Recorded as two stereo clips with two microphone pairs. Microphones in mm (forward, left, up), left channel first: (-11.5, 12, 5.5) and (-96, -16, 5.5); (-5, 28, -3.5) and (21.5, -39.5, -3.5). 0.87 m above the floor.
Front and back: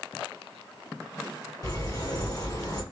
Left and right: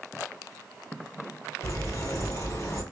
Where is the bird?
65° left, 2.5 m.